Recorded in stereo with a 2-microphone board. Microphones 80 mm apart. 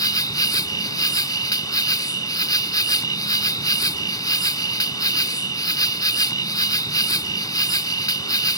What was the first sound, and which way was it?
An insect, 55° left (ahead or behind).